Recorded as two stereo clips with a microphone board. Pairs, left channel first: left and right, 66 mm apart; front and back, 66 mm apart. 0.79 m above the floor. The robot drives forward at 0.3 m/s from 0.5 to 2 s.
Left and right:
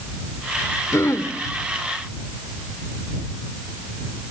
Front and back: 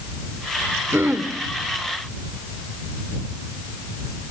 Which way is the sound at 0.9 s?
130° left.